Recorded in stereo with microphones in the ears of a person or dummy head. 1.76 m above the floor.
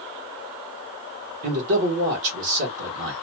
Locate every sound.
1.4 s a man speaking: 70° right (ahead or behind), 1.5 m